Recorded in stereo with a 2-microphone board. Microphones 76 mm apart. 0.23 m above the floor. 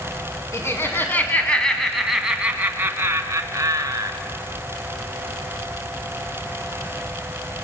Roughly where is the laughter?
Left.